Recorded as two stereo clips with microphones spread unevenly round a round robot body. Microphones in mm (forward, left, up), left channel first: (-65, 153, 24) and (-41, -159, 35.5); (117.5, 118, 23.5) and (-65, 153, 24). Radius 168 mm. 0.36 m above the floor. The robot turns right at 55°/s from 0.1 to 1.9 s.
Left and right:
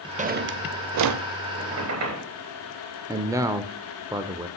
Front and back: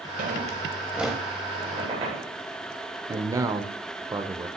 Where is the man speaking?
155° right, 0.8 m.